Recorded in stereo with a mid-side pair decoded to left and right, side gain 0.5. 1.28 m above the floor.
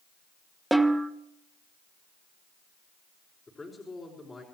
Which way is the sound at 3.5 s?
20° left.